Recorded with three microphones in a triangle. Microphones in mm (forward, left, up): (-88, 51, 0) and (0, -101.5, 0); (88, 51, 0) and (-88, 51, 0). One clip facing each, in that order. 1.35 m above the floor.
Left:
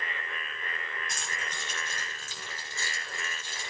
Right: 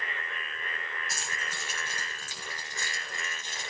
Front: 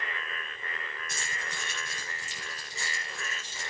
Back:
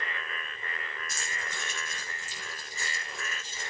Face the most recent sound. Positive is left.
turn(degrees=10)